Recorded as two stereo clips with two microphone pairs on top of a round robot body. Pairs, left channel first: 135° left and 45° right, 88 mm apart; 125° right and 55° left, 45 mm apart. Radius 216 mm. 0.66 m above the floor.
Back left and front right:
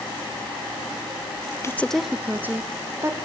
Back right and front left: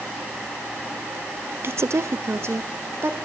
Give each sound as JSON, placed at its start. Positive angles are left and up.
{"t": 1.6, "sound": "a woman speaking", "azimuth_deg": 80, "distance_m": 0.7}